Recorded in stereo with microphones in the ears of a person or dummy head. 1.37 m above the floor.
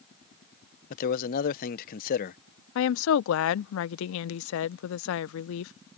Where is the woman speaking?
70° left (ahead or behind).